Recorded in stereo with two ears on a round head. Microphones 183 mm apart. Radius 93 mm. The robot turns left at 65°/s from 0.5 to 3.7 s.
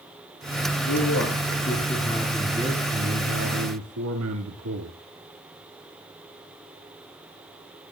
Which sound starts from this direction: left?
A man speaking, at 0.9 s.